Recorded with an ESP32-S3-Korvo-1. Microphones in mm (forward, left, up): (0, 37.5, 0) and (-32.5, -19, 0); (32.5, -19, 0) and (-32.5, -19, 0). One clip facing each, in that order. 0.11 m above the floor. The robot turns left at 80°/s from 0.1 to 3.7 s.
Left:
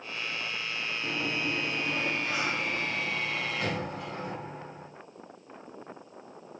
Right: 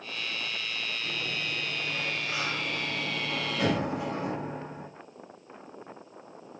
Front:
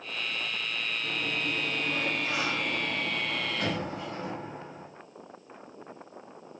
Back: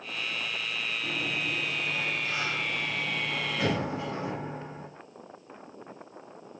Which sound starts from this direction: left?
A sliding door, at 1.0 s.